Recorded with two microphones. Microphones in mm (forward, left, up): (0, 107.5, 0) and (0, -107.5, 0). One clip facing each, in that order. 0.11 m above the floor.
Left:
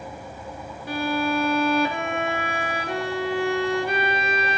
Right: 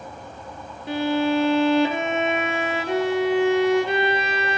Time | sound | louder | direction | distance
0.9 | a violin | right 4 dB | 20° right (ahead or behind) | 0.6 m